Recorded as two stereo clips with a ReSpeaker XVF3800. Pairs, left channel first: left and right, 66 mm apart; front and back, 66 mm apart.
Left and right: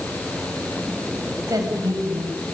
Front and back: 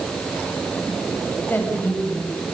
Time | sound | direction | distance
1.5 | a woman speaking | 60° right | 6.5 m